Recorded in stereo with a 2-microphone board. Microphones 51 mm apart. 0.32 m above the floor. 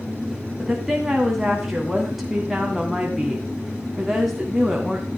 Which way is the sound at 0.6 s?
5° right (ahead or behind).